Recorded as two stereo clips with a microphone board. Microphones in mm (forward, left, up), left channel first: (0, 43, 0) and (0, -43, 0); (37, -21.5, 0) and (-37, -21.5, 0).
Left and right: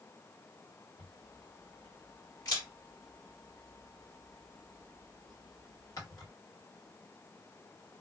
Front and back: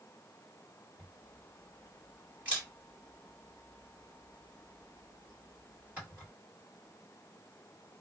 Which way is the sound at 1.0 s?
115° left.